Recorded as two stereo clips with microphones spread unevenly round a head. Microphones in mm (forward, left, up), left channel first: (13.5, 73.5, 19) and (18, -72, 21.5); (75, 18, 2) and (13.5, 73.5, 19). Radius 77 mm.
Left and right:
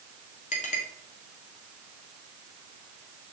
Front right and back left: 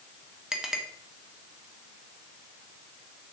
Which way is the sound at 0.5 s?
55° left.